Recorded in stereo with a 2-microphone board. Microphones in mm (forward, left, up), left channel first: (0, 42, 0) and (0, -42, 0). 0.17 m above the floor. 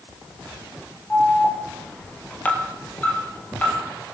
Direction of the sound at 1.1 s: 20° left (ahead or behind).